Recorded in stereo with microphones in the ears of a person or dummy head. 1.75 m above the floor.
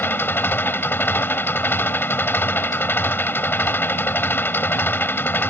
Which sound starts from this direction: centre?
An engine running, at 0.0 s.